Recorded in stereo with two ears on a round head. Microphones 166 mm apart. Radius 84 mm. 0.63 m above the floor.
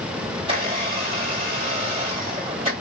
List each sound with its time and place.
0.4 s a blender: 30° right (ahead or behind), 2.5 m